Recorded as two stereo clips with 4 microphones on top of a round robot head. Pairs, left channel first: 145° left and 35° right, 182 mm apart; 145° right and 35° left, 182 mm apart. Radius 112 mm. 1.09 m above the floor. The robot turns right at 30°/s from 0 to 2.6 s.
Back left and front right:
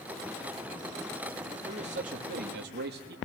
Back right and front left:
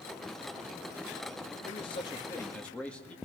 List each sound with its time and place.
1.6 s a man speaking: 90° right, 2 m; by 3.1 s 60° right, 2 m